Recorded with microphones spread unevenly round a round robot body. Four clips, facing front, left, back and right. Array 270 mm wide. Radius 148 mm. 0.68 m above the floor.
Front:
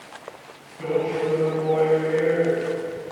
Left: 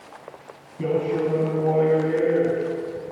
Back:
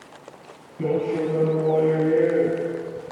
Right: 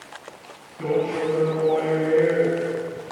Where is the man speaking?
150° left, 6 m; by 2.6 s 175° left, 5.5 m.